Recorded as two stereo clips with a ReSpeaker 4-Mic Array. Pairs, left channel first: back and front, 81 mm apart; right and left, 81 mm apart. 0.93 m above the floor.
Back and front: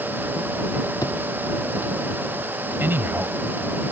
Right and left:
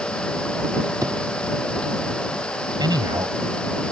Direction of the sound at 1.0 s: 135° left.